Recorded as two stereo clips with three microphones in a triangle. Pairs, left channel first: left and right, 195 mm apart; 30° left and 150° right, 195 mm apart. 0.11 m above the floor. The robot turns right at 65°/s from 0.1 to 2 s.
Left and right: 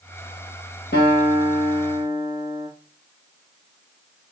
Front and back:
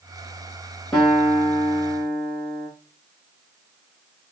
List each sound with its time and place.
0.9 s a guitar: 115° left, 2 m; by 2.7 s 175° right, 2 m